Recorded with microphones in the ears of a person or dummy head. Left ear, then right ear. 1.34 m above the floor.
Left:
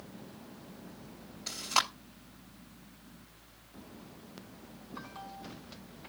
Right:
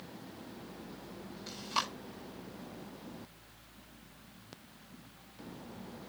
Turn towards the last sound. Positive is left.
turn(degrees=30)  # may be behind; listen again after turning